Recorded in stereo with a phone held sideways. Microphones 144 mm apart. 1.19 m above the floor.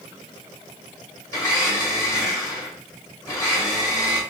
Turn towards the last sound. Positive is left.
turn(degrees=20)  # may be behind; listen again after turning